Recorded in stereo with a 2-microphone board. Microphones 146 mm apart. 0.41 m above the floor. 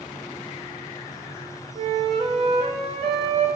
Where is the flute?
40° right (ahead or behind), 0.7 m.